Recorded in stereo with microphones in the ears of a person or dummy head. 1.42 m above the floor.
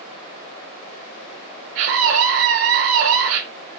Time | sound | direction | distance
1.8 | a scream | 70° right (ahead or behind) | 1.3 m